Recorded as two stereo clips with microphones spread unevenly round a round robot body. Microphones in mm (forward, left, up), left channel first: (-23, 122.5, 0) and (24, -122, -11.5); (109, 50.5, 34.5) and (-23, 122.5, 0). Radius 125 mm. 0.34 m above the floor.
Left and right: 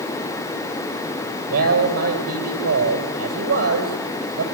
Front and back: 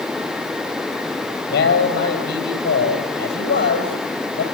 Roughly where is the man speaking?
Ahead right.